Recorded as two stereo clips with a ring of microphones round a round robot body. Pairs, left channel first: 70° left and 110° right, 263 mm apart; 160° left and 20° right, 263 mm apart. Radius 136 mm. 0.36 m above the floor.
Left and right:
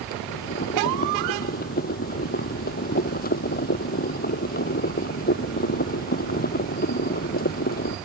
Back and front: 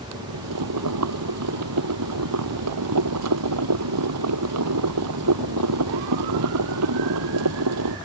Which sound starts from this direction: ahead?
Boiling, at 0.1 s.